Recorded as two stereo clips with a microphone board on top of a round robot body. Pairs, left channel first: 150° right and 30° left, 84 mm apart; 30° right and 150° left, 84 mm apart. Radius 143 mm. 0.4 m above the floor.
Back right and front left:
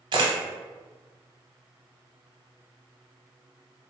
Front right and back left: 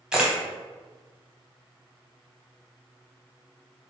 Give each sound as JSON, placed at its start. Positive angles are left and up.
{"t": 0.1, "sound": "a camera shutter", "azimuth_deg": 70, "distance_m": 0.6}